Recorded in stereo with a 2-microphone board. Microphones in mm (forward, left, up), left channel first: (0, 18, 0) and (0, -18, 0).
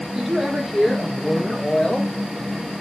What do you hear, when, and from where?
0.1 s a woman speaking: 5° right (ahead or behind), 6 m; by 2.1 s 20° left (ahead or behind), 5 m